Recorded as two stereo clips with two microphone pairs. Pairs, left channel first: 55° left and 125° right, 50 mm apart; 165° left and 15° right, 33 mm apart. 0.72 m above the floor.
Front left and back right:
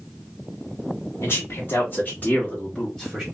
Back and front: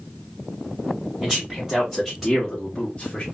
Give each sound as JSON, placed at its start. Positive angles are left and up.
{"t": 1.2, "sound": "a man speaking", "azimuth_deg": 55, "distance_m": 1.5}